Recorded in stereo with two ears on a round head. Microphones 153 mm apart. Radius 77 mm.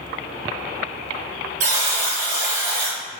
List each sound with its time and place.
1.6 s a buzzer: 45° right (ahead or behind), 1.1 m